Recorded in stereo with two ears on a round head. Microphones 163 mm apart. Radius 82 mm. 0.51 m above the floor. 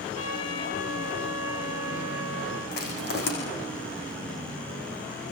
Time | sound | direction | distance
0.1 | a trumpet | 80° left | 7.5 m
2.7 | crushing | 60° left (ahead or behind) | 8 m